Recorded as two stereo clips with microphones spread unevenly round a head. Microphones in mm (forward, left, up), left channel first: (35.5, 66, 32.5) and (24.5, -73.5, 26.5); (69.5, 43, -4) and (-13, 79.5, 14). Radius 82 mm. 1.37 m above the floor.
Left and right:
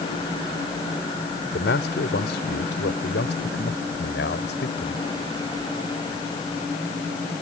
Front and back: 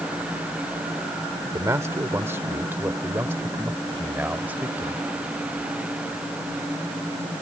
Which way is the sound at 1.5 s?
100° left.